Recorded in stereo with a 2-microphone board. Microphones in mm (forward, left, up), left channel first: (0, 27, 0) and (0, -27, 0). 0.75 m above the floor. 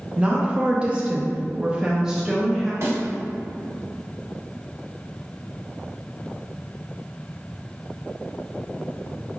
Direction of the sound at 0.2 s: 20° right (ahead or behind).